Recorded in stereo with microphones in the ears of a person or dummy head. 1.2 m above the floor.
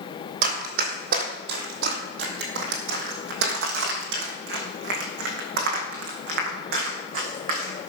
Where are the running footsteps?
50° right (ahead or behind), 2.5 m.